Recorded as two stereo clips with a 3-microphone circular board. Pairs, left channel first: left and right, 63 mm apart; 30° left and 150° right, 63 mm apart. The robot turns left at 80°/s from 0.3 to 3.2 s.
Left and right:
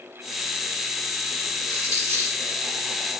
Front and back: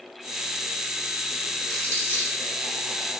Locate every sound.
1.7 s crumpling: 110° left, 1.9 m; by 2.4 s 55° left, 1.9 m